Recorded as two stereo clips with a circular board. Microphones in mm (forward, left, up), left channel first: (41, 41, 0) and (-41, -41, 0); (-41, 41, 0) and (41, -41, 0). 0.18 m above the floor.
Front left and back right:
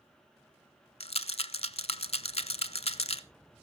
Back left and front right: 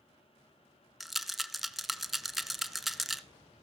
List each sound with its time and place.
1.0 s a rattle: 45° left, 0.6 m